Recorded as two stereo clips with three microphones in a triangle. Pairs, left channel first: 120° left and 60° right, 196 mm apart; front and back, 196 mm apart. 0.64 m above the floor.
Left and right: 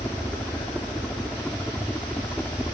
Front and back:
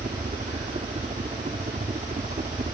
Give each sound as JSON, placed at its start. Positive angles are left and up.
{"t": 0.0, "sound": "a helicopter", "azimuth_deg": -160}